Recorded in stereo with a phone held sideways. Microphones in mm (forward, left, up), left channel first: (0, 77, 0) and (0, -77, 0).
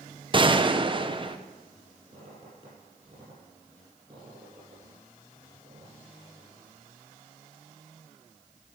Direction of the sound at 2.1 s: 35° right (ahead or behind).